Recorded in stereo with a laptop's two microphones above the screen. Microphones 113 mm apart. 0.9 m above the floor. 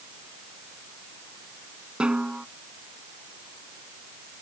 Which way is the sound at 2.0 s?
10° right (ahead or behind).